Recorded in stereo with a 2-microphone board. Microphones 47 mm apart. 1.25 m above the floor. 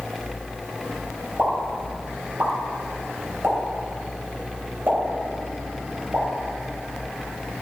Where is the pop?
45° right (ahead or behind), 3.5 m.